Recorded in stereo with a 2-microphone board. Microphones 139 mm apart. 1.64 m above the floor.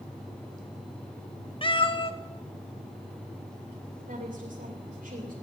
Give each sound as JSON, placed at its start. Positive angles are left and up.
{"t": 1.6, "sound": "a cat meowing", "side_deg": 40, "distance_m": 1.0}
{"t": 4.1, "sound": "a woman speaking", "side_deg": -75, "distance_m": 3.0}